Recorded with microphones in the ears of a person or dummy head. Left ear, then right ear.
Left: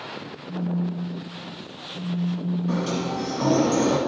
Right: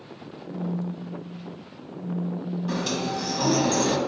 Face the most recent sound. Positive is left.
turn(degrees=-25)  # may be behind; listen again after turning